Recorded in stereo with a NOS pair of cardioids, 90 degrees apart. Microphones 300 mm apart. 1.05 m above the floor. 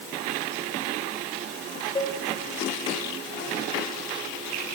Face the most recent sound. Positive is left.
turn(degrees=15)